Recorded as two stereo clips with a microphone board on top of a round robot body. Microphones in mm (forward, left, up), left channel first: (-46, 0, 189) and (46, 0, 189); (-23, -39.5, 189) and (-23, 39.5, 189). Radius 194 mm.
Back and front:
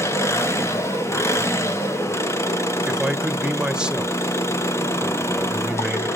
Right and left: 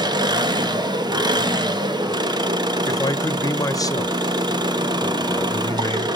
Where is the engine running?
120° left, 1.2 m.